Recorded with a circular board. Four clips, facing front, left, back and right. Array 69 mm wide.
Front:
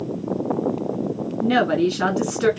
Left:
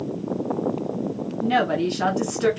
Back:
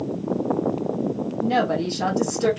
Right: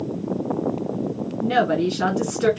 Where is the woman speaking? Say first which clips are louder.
Right 1 dB, front 4 dB; 5° right, 1.8 m.